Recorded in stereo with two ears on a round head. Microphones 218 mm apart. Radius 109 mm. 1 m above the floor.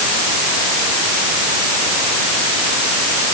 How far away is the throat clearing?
I don't hear throat clearing.